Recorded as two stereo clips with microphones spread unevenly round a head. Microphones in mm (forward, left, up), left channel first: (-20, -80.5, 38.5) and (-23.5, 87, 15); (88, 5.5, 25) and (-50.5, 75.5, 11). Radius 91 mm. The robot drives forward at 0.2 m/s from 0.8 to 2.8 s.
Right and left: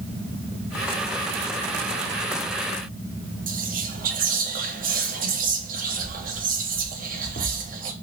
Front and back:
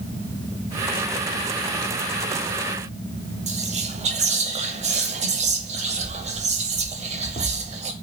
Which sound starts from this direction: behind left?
Whispering, at 3.5 s.